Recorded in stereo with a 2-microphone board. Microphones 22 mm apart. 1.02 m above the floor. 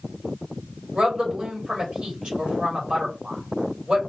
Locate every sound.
0.9 s a woman speaking: 55° right (ahead or behind), 3 m